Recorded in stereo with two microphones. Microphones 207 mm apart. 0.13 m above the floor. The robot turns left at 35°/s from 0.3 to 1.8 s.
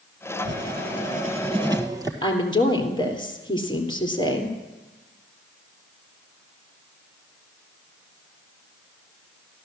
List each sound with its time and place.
0.5 s writing: 115° right, 1.8 m; by 2.1 s 160° right, 1.8 m
2.2 s a woman speaking: 20° left (ahead or behind), 3 m